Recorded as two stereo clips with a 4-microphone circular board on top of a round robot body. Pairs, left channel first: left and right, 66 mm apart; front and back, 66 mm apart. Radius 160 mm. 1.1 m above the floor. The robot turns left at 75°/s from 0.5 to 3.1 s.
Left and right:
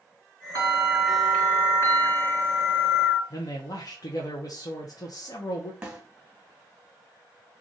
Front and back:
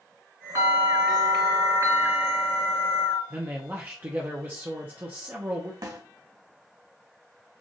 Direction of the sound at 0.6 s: 125° right.